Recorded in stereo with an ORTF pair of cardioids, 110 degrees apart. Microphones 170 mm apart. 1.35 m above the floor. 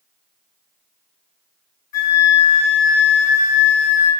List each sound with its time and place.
1.9 s a flute: 55° left, 1.2 m